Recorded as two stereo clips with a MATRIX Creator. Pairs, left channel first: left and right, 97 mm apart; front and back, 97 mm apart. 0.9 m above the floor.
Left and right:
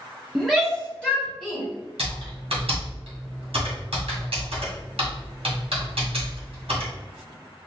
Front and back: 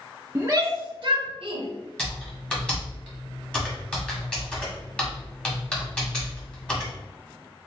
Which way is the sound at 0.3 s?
175° right.